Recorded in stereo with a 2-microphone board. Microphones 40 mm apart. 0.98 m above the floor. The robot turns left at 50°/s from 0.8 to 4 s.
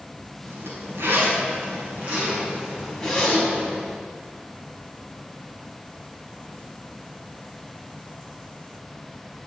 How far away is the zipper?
About 5 m.